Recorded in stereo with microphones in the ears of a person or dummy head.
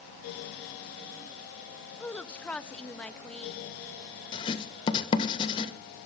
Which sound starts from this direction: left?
Writing, at 4.3 s.